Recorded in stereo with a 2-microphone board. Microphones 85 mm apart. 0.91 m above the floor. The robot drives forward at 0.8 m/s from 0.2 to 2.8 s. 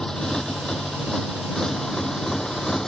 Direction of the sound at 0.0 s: 5° left (ahead or behind).